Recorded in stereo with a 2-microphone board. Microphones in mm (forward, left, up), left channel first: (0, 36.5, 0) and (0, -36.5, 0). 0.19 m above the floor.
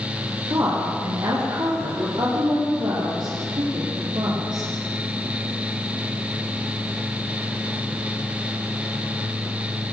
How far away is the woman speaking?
About 8 m.